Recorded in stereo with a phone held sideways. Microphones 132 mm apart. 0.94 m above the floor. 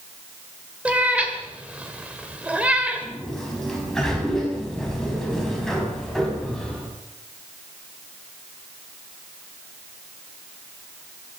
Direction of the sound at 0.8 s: 10° right (ahead or behind).